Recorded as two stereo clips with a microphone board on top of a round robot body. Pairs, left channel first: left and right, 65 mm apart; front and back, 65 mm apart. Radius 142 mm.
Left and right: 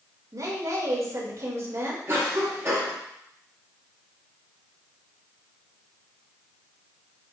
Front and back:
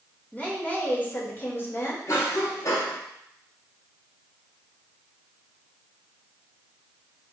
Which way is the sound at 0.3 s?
70° right.